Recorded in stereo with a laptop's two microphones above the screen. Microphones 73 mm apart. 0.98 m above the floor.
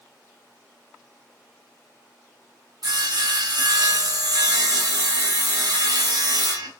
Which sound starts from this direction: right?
Sawing, at 2.8 s.